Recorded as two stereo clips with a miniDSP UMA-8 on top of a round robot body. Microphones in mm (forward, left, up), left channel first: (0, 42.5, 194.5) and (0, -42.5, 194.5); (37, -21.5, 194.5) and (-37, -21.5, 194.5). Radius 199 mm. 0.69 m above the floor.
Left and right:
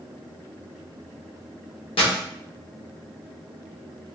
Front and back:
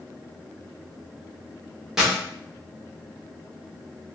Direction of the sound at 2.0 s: 95° left.